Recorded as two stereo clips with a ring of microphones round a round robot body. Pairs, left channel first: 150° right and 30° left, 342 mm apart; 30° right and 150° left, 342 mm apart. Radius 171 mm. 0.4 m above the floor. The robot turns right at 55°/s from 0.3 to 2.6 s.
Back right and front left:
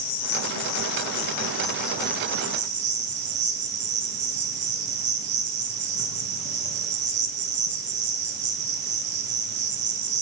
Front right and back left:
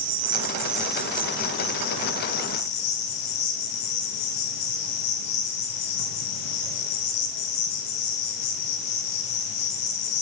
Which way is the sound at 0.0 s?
155° right.